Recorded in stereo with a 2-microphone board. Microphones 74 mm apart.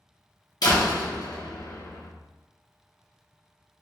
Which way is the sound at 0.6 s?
60° left (ahead or behind).